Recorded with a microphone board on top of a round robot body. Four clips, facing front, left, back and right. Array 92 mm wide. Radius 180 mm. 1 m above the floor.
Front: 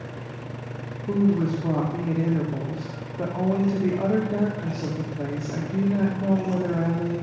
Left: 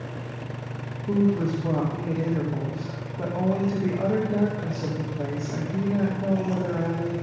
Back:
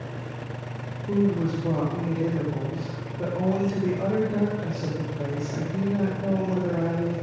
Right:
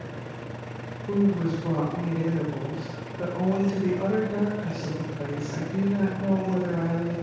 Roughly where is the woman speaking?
Ahead.